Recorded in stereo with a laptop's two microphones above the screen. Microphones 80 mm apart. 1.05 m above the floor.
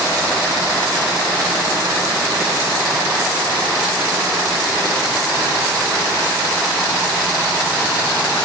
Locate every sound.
Only background noise.